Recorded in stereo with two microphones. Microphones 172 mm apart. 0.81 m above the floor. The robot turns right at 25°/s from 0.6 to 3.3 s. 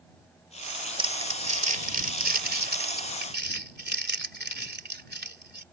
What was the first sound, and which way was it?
Crumpling, 30° right (ahead or behind).